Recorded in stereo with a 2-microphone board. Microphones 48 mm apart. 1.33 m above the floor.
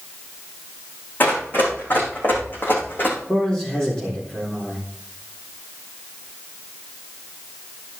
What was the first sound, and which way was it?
Running footsteps, 40° left (ahead or behind).